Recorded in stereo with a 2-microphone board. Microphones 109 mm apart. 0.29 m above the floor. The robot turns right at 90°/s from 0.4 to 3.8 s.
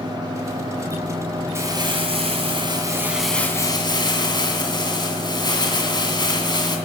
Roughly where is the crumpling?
Behind right.